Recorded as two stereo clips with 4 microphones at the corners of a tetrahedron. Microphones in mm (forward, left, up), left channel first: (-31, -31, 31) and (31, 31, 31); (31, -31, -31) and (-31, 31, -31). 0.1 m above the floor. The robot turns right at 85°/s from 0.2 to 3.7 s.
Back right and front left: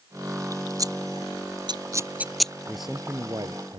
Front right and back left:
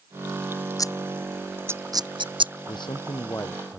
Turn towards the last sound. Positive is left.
turn(degrees=35)